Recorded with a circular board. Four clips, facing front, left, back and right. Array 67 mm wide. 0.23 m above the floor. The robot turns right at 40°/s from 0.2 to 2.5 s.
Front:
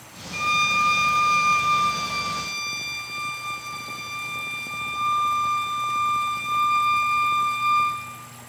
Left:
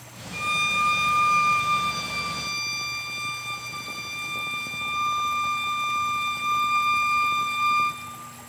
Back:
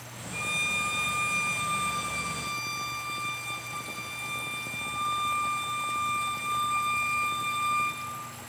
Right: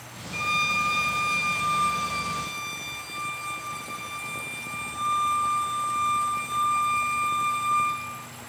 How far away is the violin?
About 0.6 m.